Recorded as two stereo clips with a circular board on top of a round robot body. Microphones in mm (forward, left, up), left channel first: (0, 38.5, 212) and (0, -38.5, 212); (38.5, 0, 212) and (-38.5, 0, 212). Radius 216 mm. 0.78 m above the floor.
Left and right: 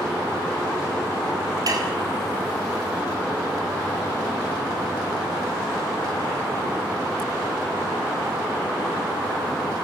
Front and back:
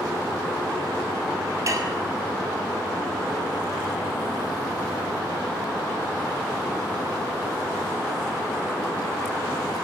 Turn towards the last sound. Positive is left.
turn(degrees=-130)